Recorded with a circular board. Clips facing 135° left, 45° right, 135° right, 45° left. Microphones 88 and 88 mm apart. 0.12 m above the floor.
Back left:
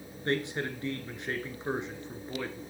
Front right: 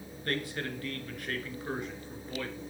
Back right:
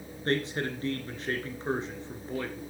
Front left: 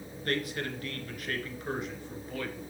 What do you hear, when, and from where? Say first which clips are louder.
0.2 s a man speaking: back left 3 dB, back right 3 dB; 175° right, 1.9 m